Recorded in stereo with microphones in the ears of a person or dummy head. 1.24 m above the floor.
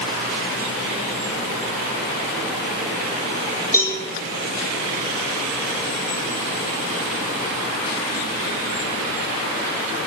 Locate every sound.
3.7 s a cowbell: 10° left (ahead or behind), 4.5 m